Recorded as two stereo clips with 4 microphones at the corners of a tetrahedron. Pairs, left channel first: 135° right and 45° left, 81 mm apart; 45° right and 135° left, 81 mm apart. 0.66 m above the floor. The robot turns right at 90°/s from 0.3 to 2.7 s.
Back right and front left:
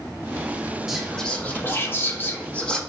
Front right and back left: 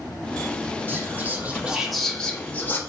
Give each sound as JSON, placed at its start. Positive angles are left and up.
{"t": 0.9, "sound": "whispering", "azimuth_deg": 125, "distance_m": 0.6}